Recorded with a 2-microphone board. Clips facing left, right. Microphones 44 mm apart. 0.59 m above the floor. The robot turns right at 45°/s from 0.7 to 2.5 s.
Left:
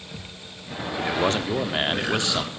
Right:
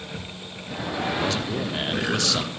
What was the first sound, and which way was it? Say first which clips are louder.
A man speaking: left 3 dB; 85° left.